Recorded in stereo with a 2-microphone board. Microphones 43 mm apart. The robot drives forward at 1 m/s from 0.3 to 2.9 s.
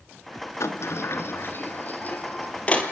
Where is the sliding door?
80° left, 1.3 m; by 2.9 s 30° left (ahead or behind), 3 m.